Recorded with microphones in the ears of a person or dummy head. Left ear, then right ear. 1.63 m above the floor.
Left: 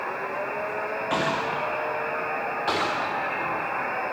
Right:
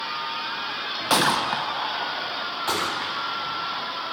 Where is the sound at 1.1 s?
50° right (ahead or behind), 0.9 m.